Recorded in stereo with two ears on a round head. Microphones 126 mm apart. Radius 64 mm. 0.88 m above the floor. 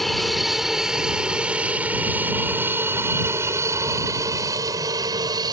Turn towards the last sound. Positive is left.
turn(degrees=-30)  # may be behind; listen again after turning